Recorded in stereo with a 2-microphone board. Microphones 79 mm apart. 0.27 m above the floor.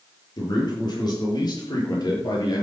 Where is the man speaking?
60° left (ahead or behind), 7 m; by 2.6 s 50° left (ahead or behind), 6 m.